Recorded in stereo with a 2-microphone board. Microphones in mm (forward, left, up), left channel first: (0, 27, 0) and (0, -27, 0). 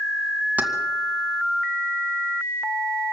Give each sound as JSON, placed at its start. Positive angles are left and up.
{"t": 0.6, "sound": "keys jangling", "side_deg": -30, "distance_m": 2.0}